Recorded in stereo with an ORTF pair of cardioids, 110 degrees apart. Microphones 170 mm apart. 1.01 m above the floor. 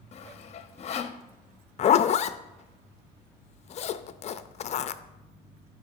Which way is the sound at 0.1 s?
40° left.